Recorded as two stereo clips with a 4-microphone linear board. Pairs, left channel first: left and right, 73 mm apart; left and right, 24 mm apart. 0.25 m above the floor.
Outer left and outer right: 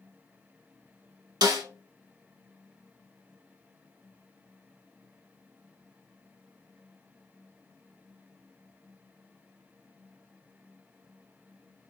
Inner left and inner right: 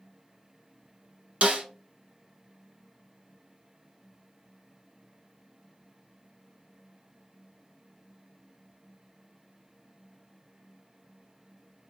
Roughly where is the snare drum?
Right.